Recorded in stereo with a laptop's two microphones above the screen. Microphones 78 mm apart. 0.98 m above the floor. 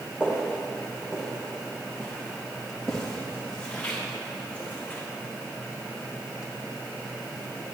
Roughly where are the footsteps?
Centre.